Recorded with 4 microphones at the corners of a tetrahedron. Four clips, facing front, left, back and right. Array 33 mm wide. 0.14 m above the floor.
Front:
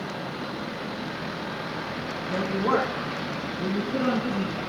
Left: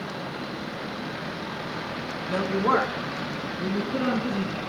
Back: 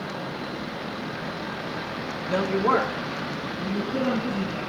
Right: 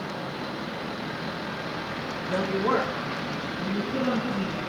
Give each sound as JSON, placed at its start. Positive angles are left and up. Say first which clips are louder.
{"t": 2.3, "sound": "a woman speaking", "louder": "left 2 dB, back 3 dB", "azimuth_deg": 160, "distance_m": 1.2}